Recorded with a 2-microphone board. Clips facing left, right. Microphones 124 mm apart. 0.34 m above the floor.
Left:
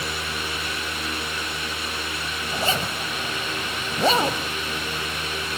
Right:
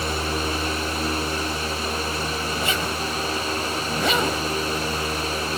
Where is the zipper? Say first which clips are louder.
Even; 35° left (ahead or behind), 1.4 m.